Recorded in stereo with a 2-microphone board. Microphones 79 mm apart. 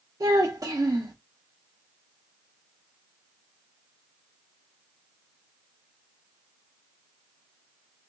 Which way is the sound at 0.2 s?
50° right (ahead or behind).